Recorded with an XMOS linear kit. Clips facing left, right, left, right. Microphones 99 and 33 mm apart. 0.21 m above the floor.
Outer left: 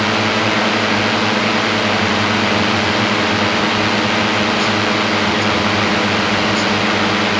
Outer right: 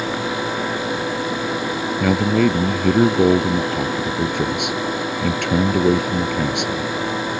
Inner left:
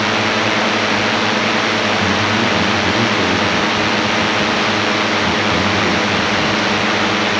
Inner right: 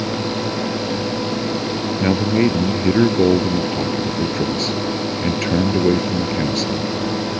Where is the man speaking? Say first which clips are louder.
Even, inner left 2 dB; 70° right (ahead or behind).